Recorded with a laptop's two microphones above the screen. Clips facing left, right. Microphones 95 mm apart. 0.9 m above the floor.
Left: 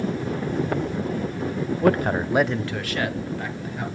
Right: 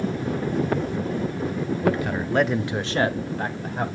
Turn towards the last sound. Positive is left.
turn(degrees=-45)  # may be behind; listen again after turning